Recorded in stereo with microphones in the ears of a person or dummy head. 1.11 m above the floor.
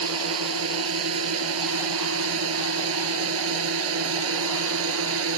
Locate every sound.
0.0 s a drone: 85° right; by 5.4 s 80° right